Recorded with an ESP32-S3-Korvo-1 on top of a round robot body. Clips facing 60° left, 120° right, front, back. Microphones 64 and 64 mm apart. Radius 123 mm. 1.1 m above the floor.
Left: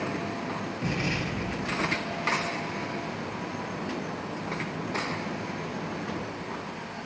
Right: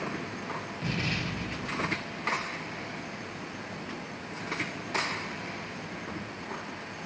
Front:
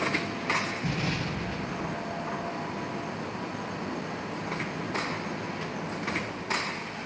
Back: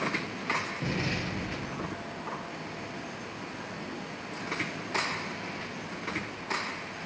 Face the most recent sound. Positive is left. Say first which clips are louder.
# left 2 dB, front 1 dB
turn(degrees=130)